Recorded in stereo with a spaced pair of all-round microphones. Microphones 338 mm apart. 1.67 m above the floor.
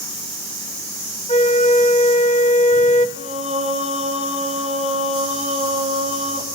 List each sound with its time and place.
1.3 s a flute: 20° left (ahead or behind), 1.4 m
3.2 s singing: 20° right (ahead or behind), 4.5 m